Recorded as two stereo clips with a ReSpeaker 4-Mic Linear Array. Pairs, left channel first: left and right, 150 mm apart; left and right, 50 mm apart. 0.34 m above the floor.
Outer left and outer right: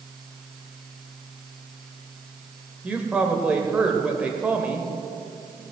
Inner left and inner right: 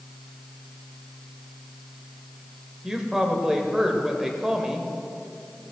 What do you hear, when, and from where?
2.8 s a woman speaking: 10° right (ahead or behind), 1.3 m